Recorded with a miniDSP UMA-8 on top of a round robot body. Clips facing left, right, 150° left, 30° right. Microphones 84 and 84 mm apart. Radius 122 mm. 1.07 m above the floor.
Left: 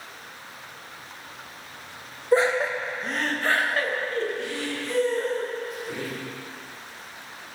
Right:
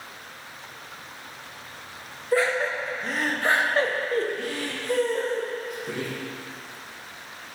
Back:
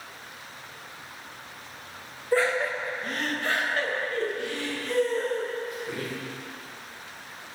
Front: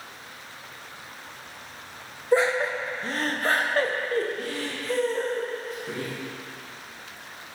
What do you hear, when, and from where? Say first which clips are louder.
2.3 s laughter: left 2 dB, front 2 dB; 35° left, 1.0 m; by 6.1 s 85° right, 1.9 m